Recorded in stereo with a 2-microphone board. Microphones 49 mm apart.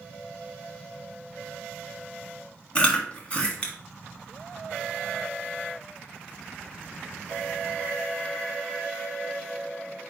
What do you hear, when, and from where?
2.8 s chewing: 25° left (ahead or behind), 1.3 m